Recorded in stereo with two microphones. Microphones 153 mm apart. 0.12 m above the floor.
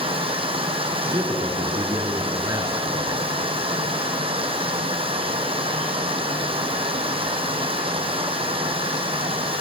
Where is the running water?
35° right (ahead or behind), 1.0 m.